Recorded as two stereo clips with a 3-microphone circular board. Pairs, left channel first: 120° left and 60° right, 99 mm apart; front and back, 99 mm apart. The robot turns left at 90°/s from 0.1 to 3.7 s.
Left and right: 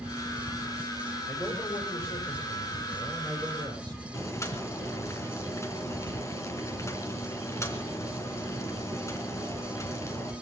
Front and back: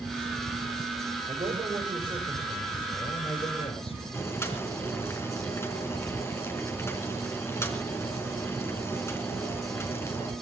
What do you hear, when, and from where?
1.3 s a man speaking: 150° right, 6 m; by 4.0 s 10° right, 6 m
4.1 s boiling: 60° left, 3.5 m